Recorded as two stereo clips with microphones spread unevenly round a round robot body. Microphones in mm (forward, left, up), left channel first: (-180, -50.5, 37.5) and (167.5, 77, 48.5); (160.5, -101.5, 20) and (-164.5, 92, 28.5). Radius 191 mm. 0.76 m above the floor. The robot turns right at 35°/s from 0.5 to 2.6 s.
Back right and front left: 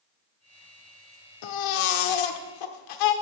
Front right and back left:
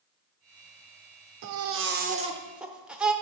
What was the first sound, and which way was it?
A baby crying, 165° right.